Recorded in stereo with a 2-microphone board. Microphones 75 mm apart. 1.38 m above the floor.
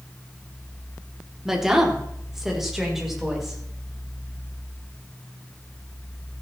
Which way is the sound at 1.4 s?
5° right (ahead or behind).